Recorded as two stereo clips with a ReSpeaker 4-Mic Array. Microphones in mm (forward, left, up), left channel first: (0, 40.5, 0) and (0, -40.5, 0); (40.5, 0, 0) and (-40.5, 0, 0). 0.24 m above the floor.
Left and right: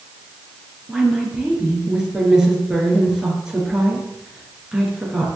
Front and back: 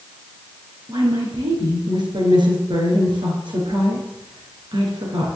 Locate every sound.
0.9 s a woman speaking: 170° right, 4 m